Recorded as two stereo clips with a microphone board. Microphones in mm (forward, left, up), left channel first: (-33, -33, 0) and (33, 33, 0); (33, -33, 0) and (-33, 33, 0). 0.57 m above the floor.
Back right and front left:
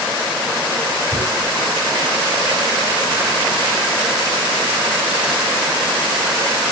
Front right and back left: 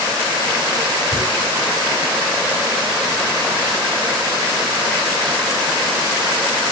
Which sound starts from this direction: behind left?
Tearing paper, at 1.1 s.